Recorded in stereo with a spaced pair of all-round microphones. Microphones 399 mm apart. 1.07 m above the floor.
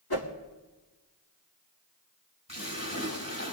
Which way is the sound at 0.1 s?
65° left (ahead or behind).